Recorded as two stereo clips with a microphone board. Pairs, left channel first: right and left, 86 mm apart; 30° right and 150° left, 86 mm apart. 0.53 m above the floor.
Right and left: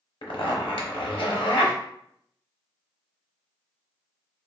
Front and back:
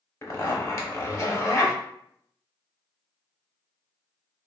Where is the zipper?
85° right, 0.7 m.